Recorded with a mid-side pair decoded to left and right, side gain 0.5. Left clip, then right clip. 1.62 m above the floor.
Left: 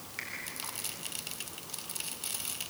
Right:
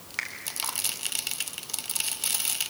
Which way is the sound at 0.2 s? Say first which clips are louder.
Right 8 dB; 55° right.